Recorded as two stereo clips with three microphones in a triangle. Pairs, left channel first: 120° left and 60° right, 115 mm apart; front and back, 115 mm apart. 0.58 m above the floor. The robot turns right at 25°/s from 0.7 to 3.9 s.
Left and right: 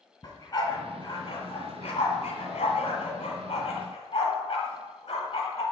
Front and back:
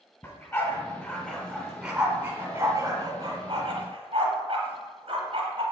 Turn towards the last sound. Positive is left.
turn(degrees=145)